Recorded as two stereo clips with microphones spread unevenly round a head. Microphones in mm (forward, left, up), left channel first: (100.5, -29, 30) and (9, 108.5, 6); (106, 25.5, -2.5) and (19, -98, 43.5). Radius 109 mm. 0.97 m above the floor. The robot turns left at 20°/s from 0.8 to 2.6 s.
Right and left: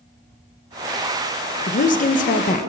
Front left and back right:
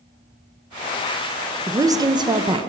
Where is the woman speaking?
45° right, 1.0 m; by 2.7 s 60° right, 1.0 m.